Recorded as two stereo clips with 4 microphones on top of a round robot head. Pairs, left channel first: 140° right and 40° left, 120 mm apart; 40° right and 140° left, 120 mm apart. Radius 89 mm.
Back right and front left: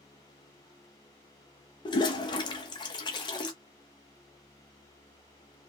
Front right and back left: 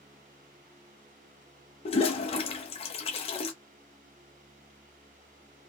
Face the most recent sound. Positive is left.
turn(degrees=-85)